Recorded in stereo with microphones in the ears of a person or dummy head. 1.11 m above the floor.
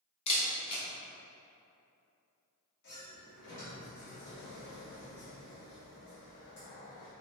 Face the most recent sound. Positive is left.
turn(degrees=65)  # may be behind; listen again after turning